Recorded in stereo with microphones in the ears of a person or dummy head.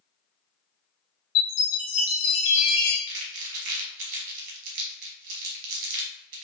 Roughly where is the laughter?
I don't hear laughter.